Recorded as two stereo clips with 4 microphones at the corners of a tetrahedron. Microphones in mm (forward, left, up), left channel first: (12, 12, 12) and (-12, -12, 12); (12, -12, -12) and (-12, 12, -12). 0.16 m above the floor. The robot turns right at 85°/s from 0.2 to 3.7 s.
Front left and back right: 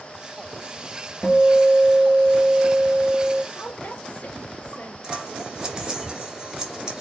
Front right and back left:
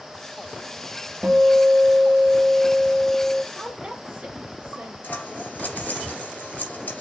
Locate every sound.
1.2 s a guitar: 75° left, 3 m; by 3.4 s 95° right, 3 m
3.5 s a woman speaking: 65° left, 3 m; by 4.9 s 80° left, 3 m
5.0 s scissors: 75° right, 3.5 m